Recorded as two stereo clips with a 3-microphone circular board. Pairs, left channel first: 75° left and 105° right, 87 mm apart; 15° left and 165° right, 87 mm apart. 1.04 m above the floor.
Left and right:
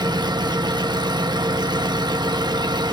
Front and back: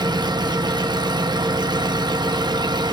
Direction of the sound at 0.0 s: 135° right.